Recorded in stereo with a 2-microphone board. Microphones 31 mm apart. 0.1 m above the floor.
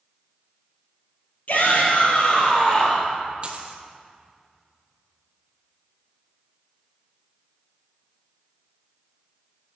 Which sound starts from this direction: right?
A dropped coin, at 3.4 s.